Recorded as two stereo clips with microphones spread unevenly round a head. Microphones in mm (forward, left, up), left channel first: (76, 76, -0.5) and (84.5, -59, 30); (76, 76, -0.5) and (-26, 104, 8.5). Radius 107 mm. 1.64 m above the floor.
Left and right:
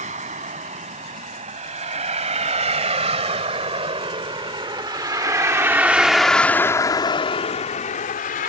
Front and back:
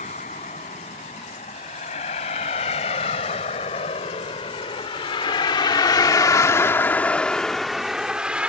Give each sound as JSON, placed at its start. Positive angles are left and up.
{"t": 0.0, "sound": "a vehicle", "azimuth_deg": -65}